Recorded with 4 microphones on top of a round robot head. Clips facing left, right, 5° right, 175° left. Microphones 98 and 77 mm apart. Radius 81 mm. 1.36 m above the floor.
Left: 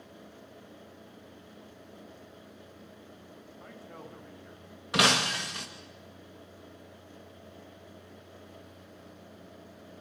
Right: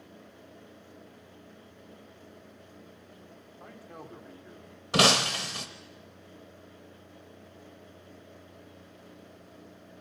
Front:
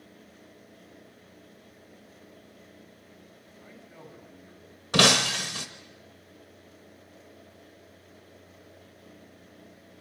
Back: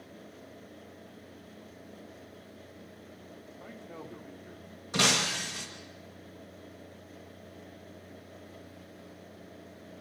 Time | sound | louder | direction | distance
3.6 | a man speaking | right 1 dB, back 3 dB | 165° right | 3 m
4.9 | breaking glass | right 2 dB, front 6 dB | 30° right | 0.7 m